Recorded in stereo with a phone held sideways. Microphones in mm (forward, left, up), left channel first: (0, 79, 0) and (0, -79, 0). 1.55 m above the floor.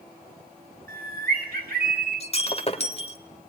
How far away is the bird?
About 4.5 m.